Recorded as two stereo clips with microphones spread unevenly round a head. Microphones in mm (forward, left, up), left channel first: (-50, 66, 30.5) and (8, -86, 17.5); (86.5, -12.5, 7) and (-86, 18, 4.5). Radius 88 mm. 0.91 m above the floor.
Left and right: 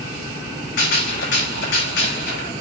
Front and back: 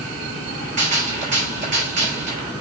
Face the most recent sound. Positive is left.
turn(degrees=120)